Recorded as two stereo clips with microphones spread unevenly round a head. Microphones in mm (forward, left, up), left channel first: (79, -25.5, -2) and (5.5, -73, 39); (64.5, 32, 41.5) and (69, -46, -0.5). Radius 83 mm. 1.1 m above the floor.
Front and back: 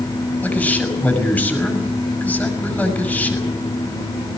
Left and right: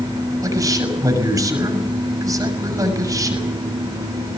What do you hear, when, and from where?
0.4 s a man speaking: 40° right, 7 m